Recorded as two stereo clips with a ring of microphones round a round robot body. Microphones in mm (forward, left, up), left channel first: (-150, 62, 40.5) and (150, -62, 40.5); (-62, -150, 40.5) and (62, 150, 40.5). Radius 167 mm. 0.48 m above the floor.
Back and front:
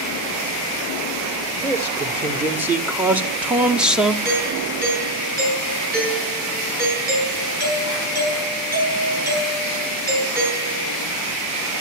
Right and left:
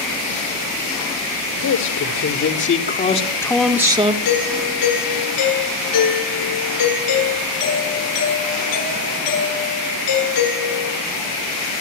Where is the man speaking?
105° right, 2 m; by 4.2 s 65° left, 1.4 m.